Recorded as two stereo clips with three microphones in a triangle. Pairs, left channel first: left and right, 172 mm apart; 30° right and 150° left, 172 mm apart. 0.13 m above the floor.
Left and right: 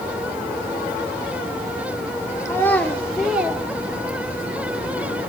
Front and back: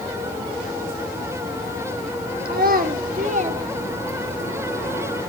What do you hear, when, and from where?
2.5 s a child speaking: 160° left, 1.5 m; by 4.5 s 140° right, 1.6 m